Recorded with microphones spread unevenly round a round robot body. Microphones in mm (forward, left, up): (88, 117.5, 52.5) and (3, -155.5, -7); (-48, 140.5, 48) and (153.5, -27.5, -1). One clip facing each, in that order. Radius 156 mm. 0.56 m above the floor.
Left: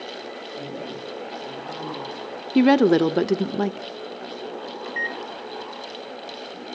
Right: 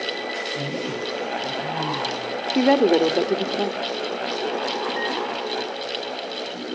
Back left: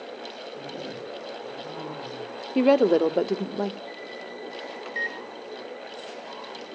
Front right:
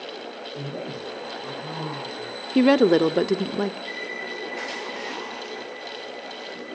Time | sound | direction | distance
0.6 | a man speaking | 80° right | 10 m
2.5 | a woman speaking | 10° left | 0.9 m
4.8 | a microwave | 120° left | 2.5 m